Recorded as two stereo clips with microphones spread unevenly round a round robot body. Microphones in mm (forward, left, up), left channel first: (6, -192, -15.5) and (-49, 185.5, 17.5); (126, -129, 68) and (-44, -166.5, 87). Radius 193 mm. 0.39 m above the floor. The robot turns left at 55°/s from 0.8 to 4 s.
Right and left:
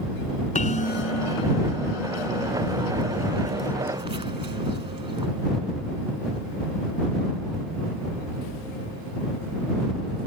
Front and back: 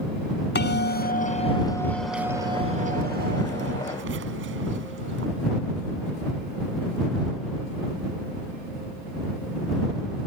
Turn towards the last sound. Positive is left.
turn(degrees=175)